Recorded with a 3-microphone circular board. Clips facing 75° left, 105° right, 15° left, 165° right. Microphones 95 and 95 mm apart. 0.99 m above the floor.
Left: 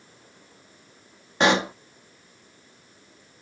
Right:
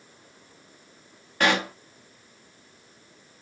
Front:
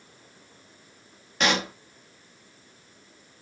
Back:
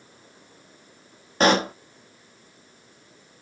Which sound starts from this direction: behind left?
A pop, at 1.4 s.